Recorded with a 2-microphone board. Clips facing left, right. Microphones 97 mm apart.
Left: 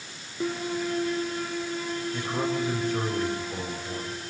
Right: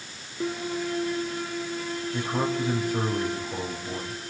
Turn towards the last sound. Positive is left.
turn(degrees=-5)  # may be behind; listen again after turning